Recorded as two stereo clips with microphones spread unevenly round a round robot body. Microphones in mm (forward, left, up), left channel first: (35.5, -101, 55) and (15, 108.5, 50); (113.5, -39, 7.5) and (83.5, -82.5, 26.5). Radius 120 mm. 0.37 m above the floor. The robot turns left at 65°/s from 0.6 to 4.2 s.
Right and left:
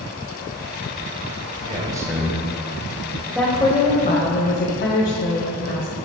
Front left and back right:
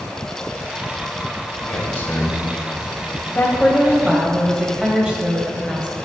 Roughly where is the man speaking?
Ahead left.